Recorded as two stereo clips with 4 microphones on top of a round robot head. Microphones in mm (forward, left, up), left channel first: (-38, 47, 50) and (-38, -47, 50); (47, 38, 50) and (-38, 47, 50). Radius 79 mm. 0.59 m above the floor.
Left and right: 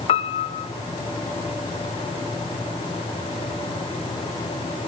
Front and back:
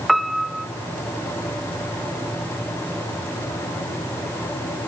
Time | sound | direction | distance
0.1 | a piano | 85° left | 0.6 m